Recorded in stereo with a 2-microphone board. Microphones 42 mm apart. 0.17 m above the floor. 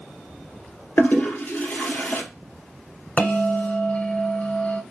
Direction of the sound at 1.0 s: 65° left (ahead or behind).